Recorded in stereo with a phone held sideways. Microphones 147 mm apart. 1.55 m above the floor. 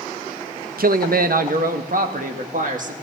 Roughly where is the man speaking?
Right.